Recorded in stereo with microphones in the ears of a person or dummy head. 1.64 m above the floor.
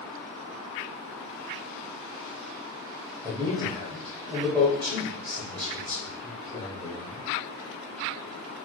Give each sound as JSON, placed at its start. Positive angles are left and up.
{"t": 3.2, "sound": "a man speaking", "side_deg": -25, "distance_m": 1.0}